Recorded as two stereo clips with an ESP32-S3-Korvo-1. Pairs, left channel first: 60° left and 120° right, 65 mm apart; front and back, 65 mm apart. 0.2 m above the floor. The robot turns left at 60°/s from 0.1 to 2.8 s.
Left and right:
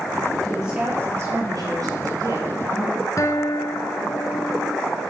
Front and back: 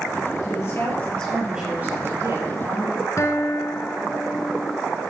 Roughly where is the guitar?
Ahead left.